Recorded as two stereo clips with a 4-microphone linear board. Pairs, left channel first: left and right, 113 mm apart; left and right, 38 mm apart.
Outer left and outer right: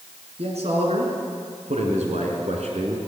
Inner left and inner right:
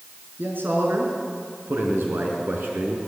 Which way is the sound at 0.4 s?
65° right (ahead or behind).